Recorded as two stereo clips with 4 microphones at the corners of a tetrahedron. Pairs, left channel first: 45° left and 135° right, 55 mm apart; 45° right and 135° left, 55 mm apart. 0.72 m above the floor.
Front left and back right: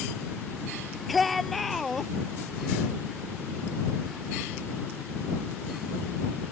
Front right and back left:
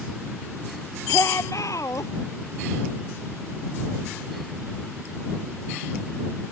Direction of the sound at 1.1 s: 45° right.